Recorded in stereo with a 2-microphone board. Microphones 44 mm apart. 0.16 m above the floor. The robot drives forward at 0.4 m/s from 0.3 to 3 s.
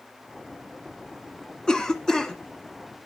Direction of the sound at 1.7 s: 20° left (ahead or behind).